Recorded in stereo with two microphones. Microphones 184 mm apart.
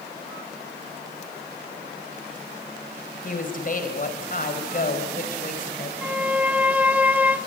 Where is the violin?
10° right (ahead or behind), 0.6 m.